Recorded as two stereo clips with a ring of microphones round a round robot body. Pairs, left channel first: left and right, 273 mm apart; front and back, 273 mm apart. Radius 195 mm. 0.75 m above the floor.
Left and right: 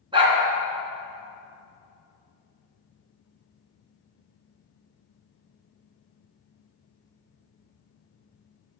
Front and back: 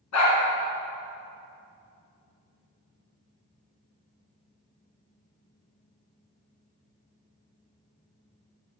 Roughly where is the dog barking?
Ahead.